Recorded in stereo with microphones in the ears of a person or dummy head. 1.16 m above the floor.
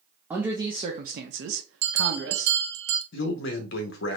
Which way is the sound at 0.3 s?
10° right (ahead or behind).